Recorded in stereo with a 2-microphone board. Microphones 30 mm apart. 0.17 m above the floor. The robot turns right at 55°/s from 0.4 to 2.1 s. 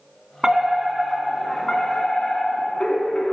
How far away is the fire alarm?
About 2.5 m.